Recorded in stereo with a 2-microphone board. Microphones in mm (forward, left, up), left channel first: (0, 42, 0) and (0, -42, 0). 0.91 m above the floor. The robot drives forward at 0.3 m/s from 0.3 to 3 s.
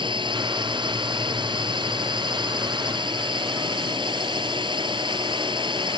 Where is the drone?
65° right (ahead or behind); by 6.0 s 60° right (ahead or behind).